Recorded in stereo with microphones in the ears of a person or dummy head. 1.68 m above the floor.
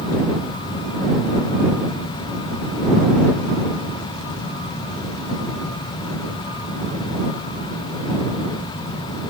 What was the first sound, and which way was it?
Only background noise.